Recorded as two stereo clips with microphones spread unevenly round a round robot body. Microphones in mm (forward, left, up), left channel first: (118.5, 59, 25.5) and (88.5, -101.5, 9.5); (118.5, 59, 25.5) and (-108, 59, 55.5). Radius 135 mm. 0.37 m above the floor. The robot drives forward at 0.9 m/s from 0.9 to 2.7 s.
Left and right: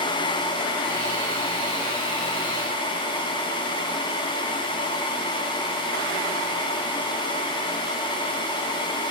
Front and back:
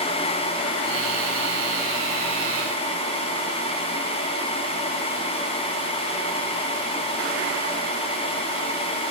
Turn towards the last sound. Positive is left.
No sound to turn to.